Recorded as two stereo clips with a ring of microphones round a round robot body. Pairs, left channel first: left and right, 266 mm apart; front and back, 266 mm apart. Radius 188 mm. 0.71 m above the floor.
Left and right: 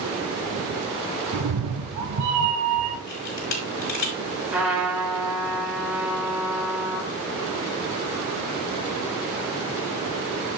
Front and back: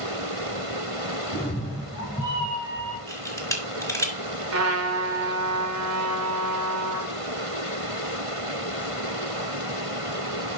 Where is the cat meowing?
70° right, 1.5 m; by 3.0 s 110° right, 1.8 m.